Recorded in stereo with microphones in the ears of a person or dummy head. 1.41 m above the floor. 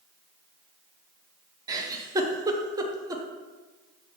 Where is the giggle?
20° right (ahead or behind), 0.8 m.